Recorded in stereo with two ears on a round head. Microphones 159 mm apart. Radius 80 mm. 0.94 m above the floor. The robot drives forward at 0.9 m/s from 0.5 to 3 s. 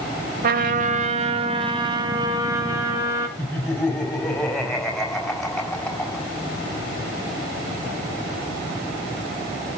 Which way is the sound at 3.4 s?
5° left (ahead or behind).